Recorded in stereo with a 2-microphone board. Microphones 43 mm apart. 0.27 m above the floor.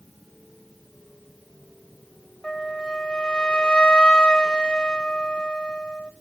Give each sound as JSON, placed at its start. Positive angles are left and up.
{"t": 2.4, "sound": "a flute", "side_deg": 20, "distance_m": 0.6}